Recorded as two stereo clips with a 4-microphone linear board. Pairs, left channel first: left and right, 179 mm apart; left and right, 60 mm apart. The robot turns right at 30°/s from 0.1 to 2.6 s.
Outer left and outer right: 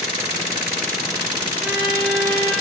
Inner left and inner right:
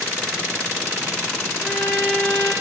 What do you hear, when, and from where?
1.6 s a violin: 10° right (ahead or behind), 1.9 m; by 2.5 s 10° left (ahead or behind), 1.9 m